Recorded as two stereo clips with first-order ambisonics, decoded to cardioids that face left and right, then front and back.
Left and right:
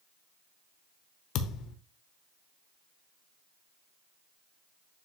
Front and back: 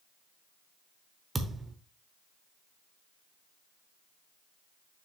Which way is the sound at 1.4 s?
105° left.